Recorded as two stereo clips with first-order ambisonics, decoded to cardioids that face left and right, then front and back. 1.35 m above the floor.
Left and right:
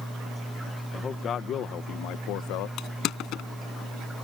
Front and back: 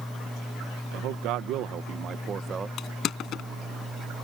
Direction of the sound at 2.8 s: 50° left.